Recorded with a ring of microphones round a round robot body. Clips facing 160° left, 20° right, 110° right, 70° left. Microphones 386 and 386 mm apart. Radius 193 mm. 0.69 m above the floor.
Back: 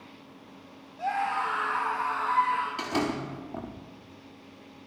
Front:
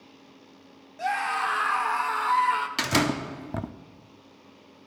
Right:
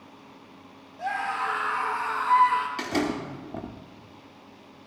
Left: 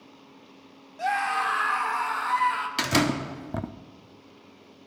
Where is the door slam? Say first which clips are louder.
Front 3 dB, left 2 dB; 15° left, 0.7 m.